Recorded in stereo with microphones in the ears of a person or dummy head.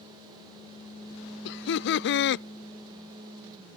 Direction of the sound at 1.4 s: 60° left (ahead or behind).